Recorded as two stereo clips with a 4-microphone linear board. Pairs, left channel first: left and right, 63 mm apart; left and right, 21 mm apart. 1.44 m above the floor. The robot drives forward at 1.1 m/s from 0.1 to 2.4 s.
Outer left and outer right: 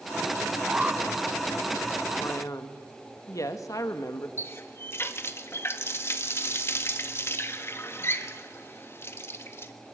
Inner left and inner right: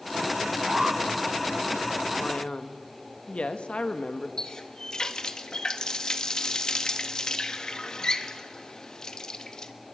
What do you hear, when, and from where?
0.7 s an alarm: 20° right (ahead or behind), 1.3 m; by 1.0 s 15° right (ahead or behind), 1.6 m
2.2 s a man speaking: 50° left (ahead or behind), 1.7 m; by 4.3 s 60° left (ahead or behind), 1.6 m
4.4 s a running tap: 40° left (ahead or behind), 1.4 m